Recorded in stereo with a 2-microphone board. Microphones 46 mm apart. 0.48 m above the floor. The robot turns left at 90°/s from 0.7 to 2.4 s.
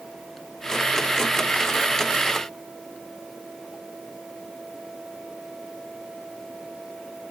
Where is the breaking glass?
I don't hear breaking glass.